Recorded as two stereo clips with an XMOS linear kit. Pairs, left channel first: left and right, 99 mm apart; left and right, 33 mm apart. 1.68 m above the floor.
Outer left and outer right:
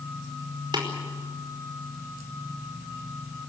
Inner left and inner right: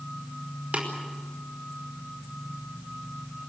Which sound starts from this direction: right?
Tapping, at 0.7 s.